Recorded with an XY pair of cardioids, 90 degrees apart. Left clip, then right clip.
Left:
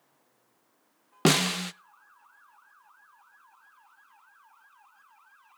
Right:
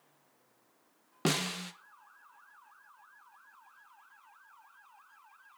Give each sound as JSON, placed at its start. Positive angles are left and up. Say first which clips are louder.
{"t": 1.2, "sound": "a snare drum", "louder": "left 8 dB", "azimuth_deg": 60, "distance_m": 0.5}